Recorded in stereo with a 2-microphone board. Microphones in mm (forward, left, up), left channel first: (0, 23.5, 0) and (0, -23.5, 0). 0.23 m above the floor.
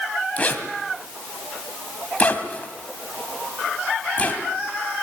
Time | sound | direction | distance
0.4 | a zipper | 30° left (ahead or behind) | 1.7 m